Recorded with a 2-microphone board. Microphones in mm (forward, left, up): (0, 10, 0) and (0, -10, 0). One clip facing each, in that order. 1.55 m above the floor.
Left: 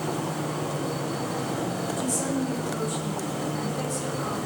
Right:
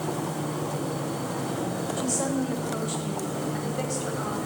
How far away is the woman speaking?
About 7 m.